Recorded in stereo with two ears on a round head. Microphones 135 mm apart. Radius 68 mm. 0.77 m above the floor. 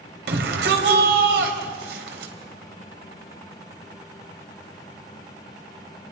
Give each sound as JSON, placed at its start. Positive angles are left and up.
{"t": 0.3, "sound": "a shout", "side_deg": -80, "distance_m": 3.5}